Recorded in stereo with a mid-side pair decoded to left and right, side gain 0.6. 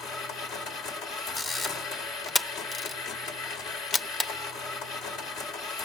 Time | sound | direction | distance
0.0 | a machine running | 70° left | 2.5 m
1.4 | a camera shutter | 25° left | 1.0 m